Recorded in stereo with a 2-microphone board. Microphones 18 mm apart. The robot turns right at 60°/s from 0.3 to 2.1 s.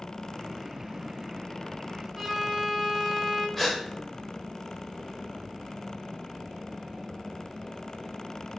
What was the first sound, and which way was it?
A violin, 20° right (ahead or behind).